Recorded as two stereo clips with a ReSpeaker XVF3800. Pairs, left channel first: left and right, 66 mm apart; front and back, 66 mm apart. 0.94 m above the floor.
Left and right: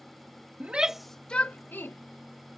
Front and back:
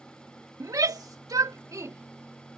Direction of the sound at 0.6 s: 155° right.